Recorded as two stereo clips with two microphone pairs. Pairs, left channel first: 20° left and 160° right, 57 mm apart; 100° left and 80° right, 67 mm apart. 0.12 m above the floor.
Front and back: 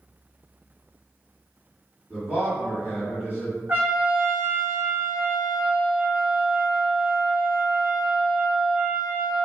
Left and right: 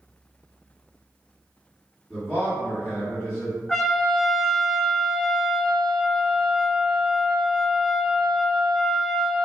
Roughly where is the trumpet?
Behind.